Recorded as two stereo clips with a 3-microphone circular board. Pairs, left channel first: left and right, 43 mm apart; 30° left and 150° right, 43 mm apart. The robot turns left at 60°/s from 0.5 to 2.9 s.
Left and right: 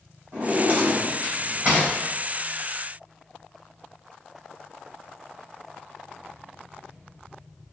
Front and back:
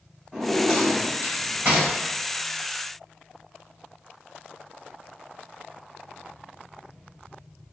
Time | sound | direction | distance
0.3 | a drawer | 80° right | 1.9 m